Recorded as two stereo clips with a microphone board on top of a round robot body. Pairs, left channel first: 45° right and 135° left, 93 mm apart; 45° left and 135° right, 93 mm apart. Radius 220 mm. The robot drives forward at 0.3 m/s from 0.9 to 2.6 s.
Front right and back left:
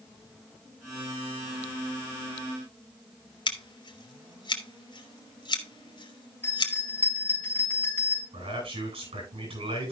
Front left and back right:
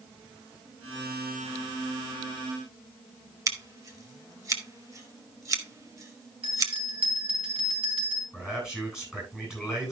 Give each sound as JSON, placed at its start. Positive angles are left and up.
{"t": 3.5, "sound": "scissors", "azimuth_deg": -80, "distance_m": 2.0}
{"t": 6.4, "sound": "a bell", "azimuth_deg": -115, "distance_m": 4.0}
{"t": 8.3, "sound": "a man speaking", "azimuth_deg": 140, "distance_m": 9.5}